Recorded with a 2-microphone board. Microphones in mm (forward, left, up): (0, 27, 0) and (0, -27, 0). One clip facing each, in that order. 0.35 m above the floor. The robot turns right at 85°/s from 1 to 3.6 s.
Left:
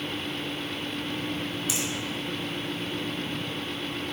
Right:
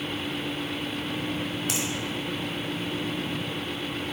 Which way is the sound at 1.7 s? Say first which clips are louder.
Right 1 dB; 55° right (ahead or behind).